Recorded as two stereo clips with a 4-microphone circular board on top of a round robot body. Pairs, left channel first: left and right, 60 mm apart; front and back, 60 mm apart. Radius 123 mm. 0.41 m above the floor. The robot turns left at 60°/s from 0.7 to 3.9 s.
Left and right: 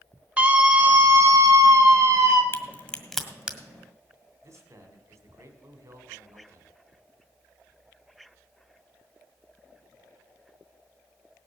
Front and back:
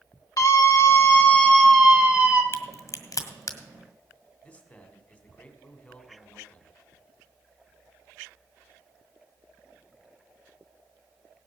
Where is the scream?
25° right, 2.5 m; by 2.4 s 125° right, 2.5 m.